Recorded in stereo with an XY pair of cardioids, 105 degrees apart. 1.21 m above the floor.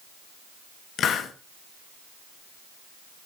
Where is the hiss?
65° left, 1.2 m.